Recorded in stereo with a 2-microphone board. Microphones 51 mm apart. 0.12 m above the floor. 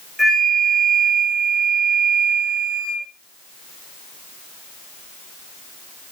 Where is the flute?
Centre (ahead or behind), 5 m.